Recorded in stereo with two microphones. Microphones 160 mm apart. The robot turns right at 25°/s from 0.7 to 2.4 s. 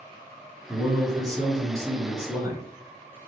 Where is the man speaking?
20° right (ahead or behind), 1.2 m.